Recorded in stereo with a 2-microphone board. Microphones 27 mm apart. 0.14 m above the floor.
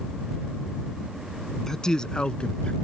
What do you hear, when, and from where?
1.7 s a man speaking: 20° left (ahead or behind); by 2.7 s 50° left (ahead or behind)